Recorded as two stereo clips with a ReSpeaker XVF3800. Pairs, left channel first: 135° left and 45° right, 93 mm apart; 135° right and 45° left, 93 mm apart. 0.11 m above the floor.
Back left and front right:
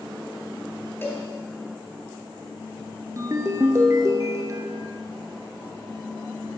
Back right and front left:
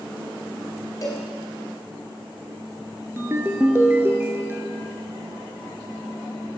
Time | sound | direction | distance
1.0 | a cowbell | 175° right | 2 m
3.2 | a ringtone | 10° right | 0.8 m